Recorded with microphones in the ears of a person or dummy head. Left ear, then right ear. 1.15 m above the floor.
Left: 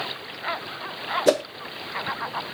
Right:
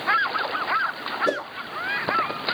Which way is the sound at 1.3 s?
30° left (ahead or behind).